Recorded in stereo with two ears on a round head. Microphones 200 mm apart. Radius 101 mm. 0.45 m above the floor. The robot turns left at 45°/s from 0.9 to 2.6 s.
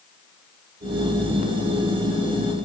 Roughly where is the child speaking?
I don't hear a child speaking.